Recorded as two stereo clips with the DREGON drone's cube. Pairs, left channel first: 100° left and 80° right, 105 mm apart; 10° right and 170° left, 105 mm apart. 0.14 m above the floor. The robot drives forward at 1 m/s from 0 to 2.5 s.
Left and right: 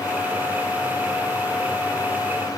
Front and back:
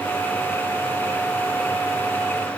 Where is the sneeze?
No sneeze in this recording.